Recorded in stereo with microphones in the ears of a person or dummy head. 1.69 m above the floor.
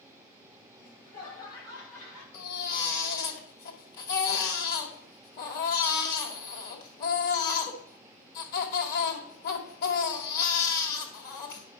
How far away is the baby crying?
About 2 m.